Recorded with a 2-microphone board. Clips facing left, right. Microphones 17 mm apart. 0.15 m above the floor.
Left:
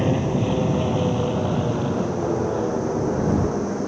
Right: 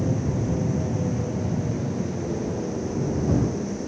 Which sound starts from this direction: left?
An aircraft, at 0.0 s.